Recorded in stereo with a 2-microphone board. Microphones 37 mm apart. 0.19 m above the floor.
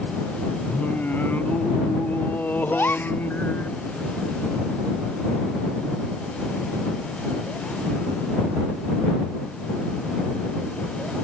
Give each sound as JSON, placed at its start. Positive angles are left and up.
{"t": 0.7, "sound": "singing", "side_deg": 60}
{"t": 2.7, "sound": "a gasp", "side_deg": 70}